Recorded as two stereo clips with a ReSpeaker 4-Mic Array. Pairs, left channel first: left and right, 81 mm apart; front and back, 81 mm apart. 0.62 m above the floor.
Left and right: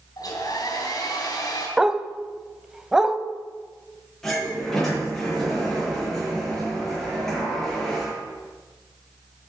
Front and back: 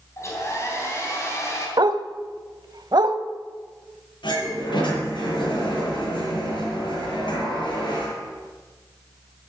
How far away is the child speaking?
No child speaking in this recording.